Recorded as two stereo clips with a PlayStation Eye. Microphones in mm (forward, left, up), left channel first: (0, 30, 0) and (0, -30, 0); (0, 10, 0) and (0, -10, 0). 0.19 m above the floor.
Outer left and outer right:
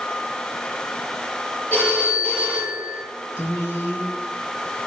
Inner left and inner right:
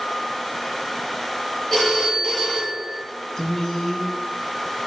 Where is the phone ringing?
25° left (ahead or behind), 2.5 m.